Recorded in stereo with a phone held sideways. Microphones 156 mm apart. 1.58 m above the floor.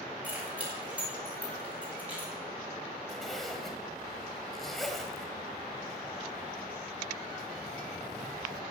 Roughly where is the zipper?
Centre.